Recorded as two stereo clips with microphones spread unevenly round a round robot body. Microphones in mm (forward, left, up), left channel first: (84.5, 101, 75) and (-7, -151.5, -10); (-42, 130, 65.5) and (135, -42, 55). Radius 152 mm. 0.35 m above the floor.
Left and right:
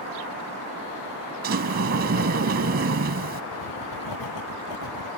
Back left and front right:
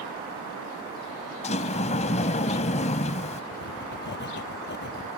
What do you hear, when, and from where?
1.4 s a sliding door: 160° right
3.5 s writing: 90° left